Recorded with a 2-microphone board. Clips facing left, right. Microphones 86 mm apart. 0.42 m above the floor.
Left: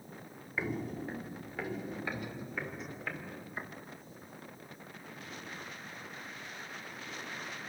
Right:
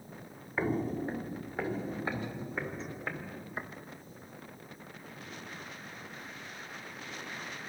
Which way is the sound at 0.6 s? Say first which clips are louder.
Right 5 dB; 40° right (ahead or behind).